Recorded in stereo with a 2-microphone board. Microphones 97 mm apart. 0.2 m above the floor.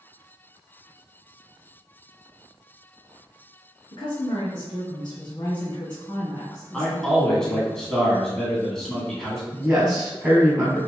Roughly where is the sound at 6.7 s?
Centre.